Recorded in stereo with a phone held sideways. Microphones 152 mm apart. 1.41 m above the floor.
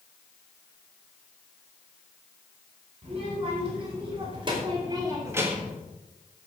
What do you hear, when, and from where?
3.0 s a child speaking: 45° right (ahead or behind), 4.5 m; by 5.8 s centre (ahead or behind), 1.1 m